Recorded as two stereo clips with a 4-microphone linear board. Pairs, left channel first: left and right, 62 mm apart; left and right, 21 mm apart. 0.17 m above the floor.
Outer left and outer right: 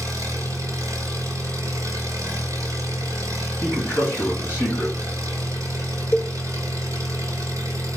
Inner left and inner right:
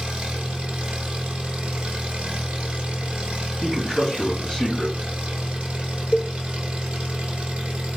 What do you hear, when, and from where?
0.0 s an engine running: 65° right (ahead or behind), 1.3 m
3.6 s a man speaking: 30° left (ahead or behind), 2.0 m
6.1 s a cowbell: 10° left (ahead or behind), 0.9 m